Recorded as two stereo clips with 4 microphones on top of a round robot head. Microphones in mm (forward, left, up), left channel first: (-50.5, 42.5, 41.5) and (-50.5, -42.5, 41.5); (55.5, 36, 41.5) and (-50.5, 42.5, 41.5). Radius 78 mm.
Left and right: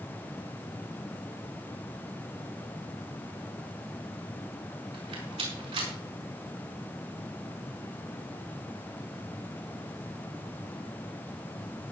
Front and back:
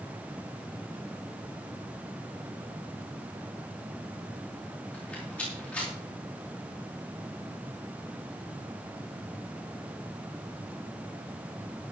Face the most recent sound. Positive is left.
turn(degrees=-85)